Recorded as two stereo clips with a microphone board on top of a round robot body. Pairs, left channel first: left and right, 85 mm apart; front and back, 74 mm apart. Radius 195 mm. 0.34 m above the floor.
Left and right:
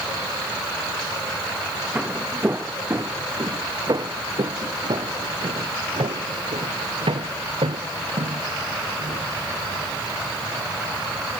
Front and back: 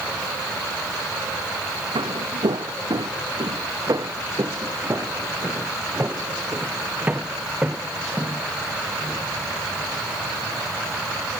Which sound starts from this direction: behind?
Footsteps, at 1.9 s.